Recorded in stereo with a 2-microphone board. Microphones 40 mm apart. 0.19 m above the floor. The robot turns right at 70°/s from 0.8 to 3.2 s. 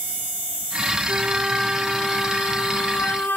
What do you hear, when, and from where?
1.1 s a flute: 55° right, 0.9 m; by 3.4 s 95° left, 0.9 m